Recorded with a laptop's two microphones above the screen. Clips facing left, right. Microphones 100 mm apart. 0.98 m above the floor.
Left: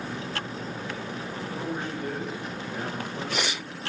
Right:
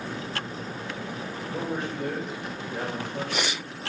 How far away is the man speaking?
About 4.5 m.